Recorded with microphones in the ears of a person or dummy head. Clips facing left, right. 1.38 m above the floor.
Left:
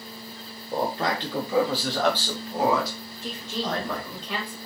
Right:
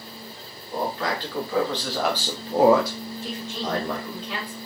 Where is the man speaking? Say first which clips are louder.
Left 1 dB; 30° left (ahead or behind), 1.0 m; by 4.2 s 85° right, 1.0 m.